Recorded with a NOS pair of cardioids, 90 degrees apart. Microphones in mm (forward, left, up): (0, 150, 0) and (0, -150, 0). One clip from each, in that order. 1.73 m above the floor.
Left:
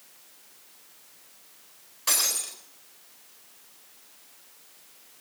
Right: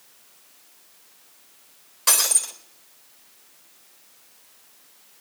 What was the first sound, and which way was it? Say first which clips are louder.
Breaking glass: right 5 dB; 50° right.